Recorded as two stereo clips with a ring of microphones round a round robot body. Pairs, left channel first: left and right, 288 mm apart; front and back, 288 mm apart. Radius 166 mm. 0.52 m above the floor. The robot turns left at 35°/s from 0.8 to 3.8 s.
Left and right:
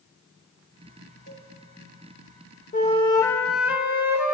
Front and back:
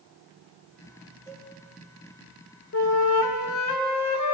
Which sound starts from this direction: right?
A cowbell, at 1.3 s.